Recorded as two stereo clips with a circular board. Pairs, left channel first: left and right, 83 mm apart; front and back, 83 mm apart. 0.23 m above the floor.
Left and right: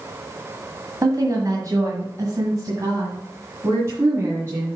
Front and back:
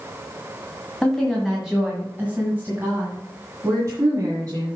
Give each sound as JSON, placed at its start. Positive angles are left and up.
{"t": 1.0, "sound": "a woman speaking", "azimuth_deg": -85, "distance_m": 2.0}